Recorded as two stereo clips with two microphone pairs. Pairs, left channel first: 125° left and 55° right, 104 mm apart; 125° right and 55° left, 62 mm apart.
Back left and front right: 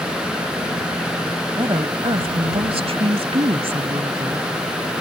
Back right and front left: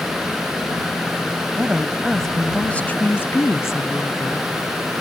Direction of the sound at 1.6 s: 10° right.